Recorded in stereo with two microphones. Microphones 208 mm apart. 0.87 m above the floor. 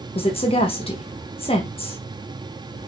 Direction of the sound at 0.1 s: 30° left (ahead or behind).